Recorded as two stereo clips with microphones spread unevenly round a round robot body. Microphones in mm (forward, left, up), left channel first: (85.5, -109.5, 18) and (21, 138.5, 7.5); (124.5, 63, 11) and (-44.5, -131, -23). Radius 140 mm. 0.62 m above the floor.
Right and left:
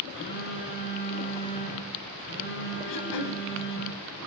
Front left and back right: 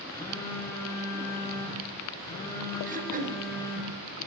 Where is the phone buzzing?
30° right, 6 m.